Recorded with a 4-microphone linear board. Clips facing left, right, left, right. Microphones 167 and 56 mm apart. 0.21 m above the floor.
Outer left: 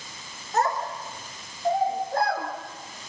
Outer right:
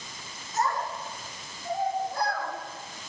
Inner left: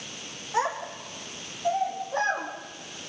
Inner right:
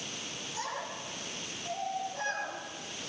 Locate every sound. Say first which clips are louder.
0.5 s a child speaking: outer left 3 dB, inner left 11 dB; 65° left (ahead or behind), 9 m; by 2.5 s 55° left (ahead or behind), 7 m